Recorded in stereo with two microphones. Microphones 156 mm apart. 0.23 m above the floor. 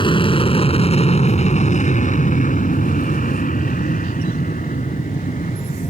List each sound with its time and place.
0.0 s an aircraft: 35° left (ahead or behind); by 5.9 s 50° left (ahead or behind)